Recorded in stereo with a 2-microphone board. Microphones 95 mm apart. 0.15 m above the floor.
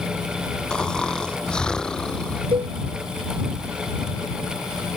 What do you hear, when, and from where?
0.7 s snoring: 10° left (ahead or behind)
2.5 s a cowbell: 70° right (ahead or behind)